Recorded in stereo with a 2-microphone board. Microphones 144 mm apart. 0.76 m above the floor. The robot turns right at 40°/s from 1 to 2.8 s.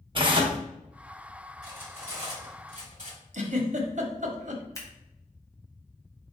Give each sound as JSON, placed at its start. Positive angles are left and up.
{"t": 0.1, "sound": "tearing paper", "side_deg": -35, "distance_m": 0.8}
{"t": 1.6, "sound": "cutlery clinking", "azimuth_deg": -170, "distance_m": 1.6}
{"t": 3.3, "sound": "a giggle", "side_deg": -55, "distance_m": 0.8}
{"t": 4.8, "sound": "scissors", "side_deg": 25, "distance_m": 1.2}